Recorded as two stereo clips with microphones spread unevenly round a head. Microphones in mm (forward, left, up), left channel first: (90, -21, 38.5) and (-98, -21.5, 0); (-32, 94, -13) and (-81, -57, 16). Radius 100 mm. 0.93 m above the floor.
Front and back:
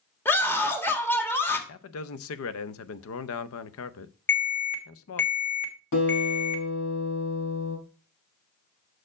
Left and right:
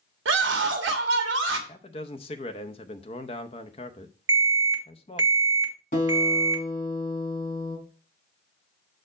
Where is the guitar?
15° left, 4 m.